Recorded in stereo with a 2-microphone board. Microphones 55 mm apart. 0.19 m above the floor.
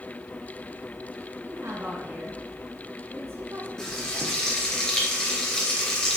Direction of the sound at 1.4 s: 55° right (ahead or behind).